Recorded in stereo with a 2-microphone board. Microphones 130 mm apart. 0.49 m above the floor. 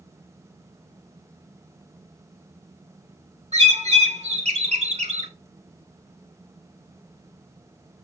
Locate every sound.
3.5 s a bird: 55° right (ahead or behind), 1.5 m